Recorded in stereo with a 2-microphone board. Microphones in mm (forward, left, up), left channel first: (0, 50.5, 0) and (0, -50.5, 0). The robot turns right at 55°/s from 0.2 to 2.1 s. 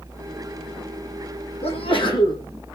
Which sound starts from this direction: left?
A sneeze, at 1.6 s.